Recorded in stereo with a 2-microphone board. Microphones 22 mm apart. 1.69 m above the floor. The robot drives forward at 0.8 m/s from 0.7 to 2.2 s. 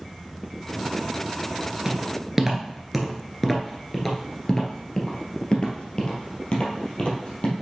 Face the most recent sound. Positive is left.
turn(degrees=50)  # may be behind; listen again after turning